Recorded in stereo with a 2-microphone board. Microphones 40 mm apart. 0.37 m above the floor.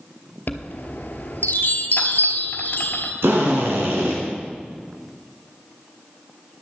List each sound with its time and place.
0.5 s a chime: 50° left (ahead or behind), 1.2 m
3.2 s a drill: 75° right (ahead or behind), 3 m